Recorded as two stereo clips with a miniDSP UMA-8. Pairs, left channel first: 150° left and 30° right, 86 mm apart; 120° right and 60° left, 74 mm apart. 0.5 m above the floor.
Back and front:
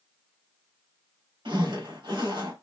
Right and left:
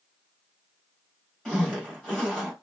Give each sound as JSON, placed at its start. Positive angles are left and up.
{"t": 1.4, "sound": "a zipper", "azimuth_deg": -40, "distance_m": 2.5}